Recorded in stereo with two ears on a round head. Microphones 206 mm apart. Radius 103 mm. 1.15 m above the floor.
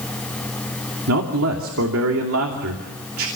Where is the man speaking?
65° right (ahead or behind), 2.5 m.